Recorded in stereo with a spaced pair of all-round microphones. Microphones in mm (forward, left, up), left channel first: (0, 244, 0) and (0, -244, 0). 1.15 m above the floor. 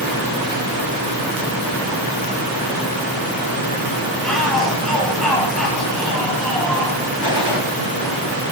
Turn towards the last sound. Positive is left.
turn(degrees=55)  # may be behind; listen again after turning